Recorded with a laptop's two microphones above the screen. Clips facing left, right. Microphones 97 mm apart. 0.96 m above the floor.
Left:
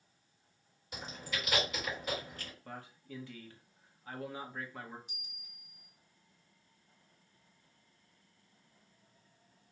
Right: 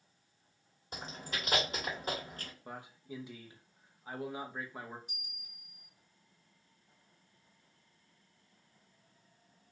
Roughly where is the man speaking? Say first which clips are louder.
Right 3 dB; centre.